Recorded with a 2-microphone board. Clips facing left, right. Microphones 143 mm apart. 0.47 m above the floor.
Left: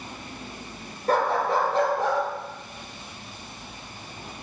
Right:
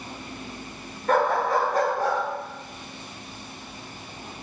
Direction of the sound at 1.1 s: 35° left (ahead or behind).